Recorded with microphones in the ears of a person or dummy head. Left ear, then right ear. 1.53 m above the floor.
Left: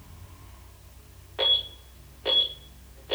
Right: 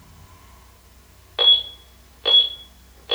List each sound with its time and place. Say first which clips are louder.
0.0 s a fan: right 3 dB; 80° right, 7 m
1.4 s an alarm: right 8 dB; 80° right, 6 m